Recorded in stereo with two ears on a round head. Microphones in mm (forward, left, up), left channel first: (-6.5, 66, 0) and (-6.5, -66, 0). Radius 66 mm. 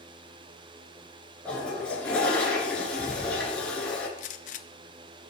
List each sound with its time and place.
1.4 s a toilet flushing: 10° left (ahead or behind), 2.5 m
4.2 s a gunshot: 55° left (ahead or behind), 0.5 m